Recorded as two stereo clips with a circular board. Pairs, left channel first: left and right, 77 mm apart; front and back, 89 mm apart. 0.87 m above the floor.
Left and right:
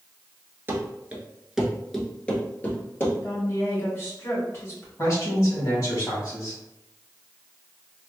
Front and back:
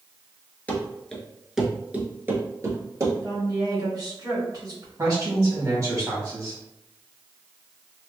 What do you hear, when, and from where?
0.7 s running footsteps: 60° right, 0.9 m; by 3.1 s 145° left, 1.2 m
3.2 s a woman speaking: 140° left, 1.8 m
5.0 s a man speaking: 130° left, 2.0 m